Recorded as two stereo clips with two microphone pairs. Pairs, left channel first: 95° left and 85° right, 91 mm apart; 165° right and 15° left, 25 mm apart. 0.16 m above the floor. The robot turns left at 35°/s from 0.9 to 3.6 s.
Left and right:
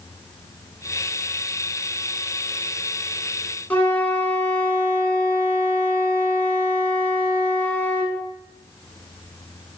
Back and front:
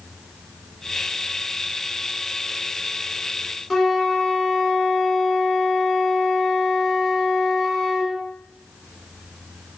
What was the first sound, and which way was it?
A flute, 140° left.